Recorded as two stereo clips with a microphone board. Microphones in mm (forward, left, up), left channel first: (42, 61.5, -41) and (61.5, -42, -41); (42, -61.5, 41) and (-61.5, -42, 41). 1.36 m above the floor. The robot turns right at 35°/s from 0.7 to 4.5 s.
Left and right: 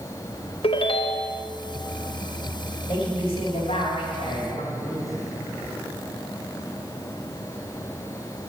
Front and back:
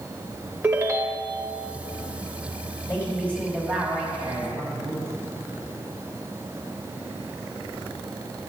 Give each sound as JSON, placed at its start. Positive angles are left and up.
{"t": 0.6, "sound": "a ringtone", "azimuth_deg": 105, "distance_m": 0.8}
{"t": 2.9, "sound": "a woman speaking", "azimuth_deg": 55, "distance_m": 3.0}